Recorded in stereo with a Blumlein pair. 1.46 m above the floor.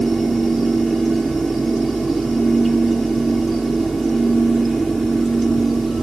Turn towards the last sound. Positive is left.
turn(degrees=-10)